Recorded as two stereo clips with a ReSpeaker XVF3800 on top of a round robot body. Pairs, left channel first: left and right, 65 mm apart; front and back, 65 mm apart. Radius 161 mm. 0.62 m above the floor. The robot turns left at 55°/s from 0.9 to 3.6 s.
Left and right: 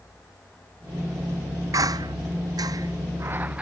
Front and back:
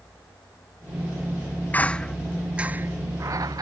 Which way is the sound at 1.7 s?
60° right.